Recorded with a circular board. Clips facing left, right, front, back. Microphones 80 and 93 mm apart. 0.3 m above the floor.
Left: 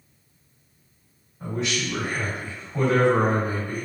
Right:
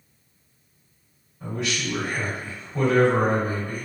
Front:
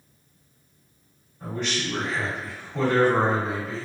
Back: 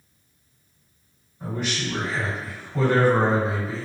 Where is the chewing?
I don't hear chewing.